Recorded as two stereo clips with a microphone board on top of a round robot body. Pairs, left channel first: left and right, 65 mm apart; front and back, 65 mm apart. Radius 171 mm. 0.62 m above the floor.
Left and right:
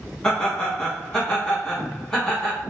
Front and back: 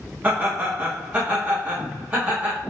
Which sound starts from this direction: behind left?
Laughter, at 0.2 s.